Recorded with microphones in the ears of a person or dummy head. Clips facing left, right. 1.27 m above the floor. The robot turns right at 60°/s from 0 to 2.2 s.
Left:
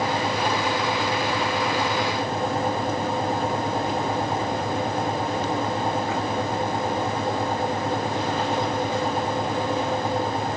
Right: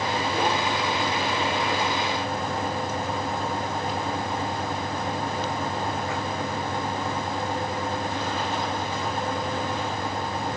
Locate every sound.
Only background noise.